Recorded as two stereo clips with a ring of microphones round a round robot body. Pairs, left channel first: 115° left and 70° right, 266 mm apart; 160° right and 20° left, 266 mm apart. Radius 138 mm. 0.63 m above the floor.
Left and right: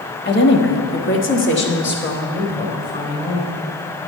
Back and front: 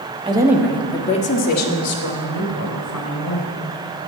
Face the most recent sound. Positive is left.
turn(degrees=170)